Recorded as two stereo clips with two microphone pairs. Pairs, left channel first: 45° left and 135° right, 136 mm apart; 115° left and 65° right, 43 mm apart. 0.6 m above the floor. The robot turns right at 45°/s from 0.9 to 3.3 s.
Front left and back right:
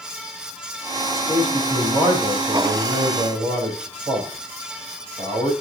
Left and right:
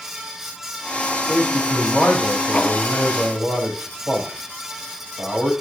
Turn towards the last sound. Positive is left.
turn(degrees=-100)